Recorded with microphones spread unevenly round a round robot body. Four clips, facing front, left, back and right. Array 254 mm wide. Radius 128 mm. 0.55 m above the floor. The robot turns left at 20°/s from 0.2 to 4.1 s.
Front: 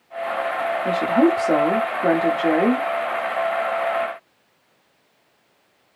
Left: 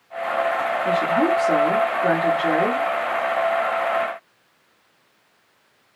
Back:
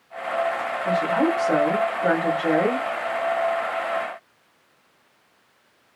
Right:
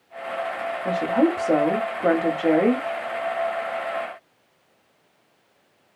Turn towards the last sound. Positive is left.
turn(degrees=-85)